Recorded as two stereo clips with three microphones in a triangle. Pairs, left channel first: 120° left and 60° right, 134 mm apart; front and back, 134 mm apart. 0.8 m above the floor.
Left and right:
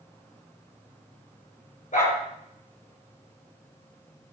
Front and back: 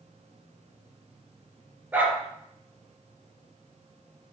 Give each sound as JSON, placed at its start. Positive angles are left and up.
{"t": 1.9, "sound": "a dog barking", "azimuth_deg": 100, "distance_m": 3.5}